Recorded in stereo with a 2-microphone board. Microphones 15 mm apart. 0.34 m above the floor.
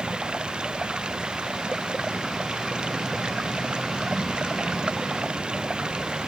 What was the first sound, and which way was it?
Running water, 80° right.